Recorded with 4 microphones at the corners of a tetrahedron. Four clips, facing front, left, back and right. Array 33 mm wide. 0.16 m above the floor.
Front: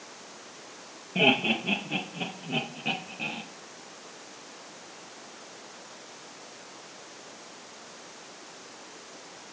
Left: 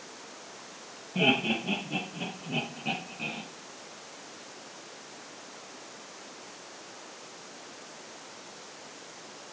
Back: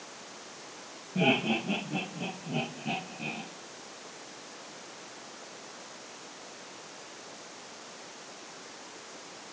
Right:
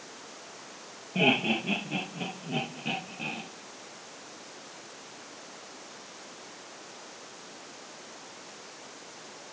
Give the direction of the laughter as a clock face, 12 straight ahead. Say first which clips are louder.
Right 1 dB, front 3 dB; 1 o'clock.